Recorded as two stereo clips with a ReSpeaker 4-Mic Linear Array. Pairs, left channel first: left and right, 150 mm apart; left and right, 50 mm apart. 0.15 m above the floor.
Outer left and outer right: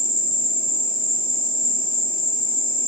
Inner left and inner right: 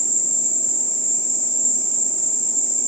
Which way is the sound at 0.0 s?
80° right.